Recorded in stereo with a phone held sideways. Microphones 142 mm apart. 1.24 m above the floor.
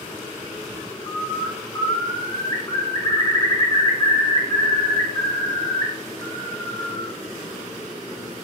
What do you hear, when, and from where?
1.1 s a bird: 30° left (ahead or behind), 0.8 m